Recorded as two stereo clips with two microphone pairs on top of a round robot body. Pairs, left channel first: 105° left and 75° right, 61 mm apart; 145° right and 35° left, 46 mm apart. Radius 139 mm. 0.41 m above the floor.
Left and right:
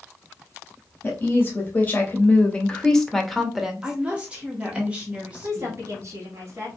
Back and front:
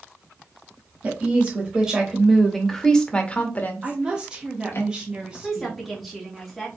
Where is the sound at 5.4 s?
50° right, 1.5 m.